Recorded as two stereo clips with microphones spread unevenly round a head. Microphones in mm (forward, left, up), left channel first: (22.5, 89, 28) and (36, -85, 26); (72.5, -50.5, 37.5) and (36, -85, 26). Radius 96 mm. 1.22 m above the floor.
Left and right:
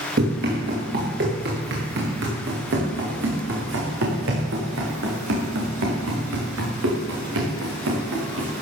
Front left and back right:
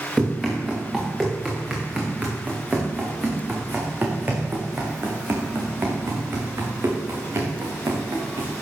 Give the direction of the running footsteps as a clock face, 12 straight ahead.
2 o'clock.